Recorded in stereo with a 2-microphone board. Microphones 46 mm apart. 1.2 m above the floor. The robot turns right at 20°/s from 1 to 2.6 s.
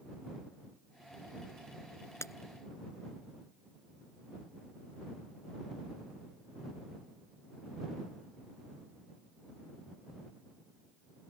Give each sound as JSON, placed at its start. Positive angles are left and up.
{"t": 2.2, "sound": "breaking glass", "side_deg": 85}